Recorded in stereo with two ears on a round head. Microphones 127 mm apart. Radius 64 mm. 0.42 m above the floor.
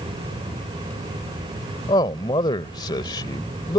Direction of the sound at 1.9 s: 30° left (ahead or behind).